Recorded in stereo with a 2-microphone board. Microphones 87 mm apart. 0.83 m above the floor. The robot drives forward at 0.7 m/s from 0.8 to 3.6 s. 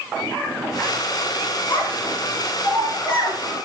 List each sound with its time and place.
1.7 s a child speaking: 85° left, 7 m